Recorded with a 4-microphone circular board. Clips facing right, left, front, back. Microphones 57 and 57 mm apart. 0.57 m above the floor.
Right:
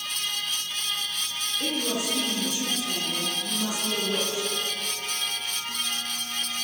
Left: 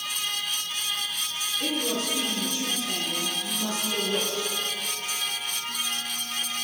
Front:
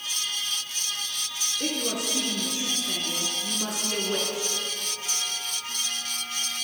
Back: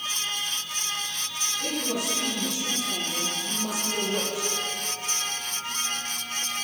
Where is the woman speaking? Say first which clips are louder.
Even, even; 15° right, 9 m.